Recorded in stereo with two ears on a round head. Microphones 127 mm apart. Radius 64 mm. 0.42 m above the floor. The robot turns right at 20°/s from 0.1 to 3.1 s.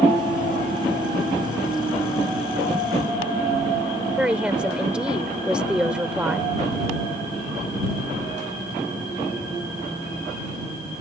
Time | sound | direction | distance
4.2 | a woman speaking | 10° right (ahead or behind) | ?